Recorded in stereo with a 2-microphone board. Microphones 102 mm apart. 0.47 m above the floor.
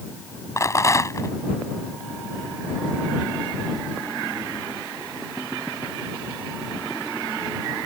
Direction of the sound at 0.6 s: 30° left (ahead or behind).